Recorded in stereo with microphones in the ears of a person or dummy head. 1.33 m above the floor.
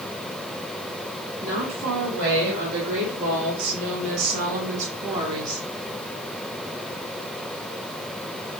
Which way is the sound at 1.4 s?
85° right.